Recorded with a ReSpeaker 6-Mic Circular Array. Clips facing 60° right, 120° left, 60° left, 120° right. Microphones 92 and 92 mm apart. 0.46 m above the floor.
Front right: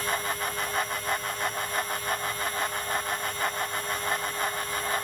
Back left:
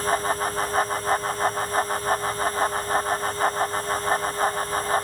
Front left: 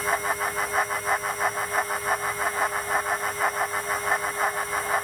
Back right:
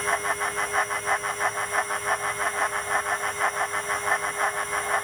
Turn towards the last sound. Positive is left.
No sound to turn to.